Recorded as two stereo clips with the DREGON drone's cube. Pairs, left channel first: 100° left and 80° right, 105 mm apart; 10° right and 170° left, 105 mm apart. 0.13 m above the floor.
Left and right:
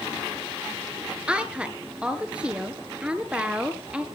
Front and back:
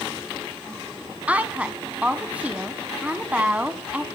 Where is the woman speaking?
140° right, 1.4 m.